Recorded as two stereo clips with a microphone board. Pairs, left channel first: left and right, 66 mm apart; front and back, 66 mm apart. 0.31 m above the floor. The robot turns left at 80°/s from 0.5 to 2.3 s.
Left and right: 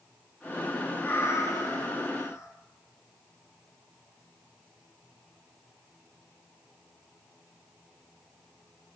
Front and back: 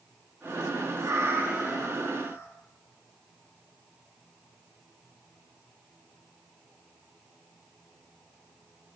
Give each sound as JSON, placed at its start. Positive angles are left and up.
{"t": 1.0, "sound": "a cat meowing", "azimuth_deg": 150, "distance_m": 1.3}